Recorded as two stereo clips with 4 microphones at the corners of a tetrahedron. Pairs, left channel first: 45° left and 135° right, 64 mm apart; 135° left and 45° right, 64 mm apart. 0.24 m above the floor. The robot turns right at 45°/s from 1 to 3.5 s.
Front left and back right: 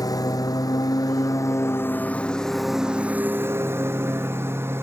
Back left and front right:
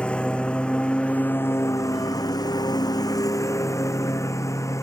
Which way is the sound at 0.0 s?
60° left.